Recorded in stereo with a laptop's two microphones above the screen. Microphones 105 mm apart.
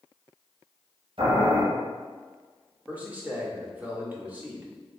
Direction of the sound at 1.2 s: 70° right (ahead or behind).